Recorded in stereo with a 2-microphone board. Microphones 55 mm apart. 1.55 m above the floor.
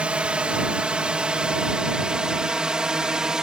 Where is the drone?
20° right (ahead or behind); by 3.4 s 15° right (ahead or behind).